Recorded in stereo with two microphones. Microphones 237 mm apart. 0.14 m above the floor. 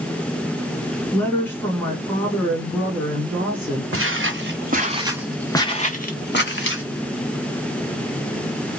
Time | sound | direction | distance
1.1 | a woman speaking | 10° left (ahead or behind) | 1.4 m
3.9 | footsteps | 60° right (ahead or behind) | 1.2 m